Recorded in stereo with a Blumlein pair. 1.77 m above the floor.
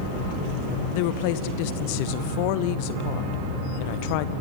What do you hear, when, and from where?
0.9 s a woman speaking: 45° left, 1.3 m